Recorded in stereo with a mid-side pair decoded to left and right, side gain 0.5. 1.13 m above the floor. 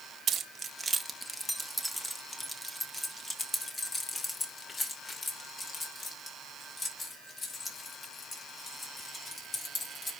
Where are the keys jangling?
50° right, 0.8 m; by 10.1 s 35° left, 5 m.